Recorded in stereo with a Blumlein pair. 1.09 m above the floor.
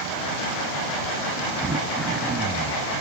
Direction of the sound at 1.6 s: 20° right.